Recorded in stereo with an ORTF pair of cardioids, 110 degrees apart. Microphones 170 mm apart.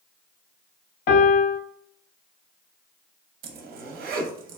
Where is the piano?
70° left, 0.7 m.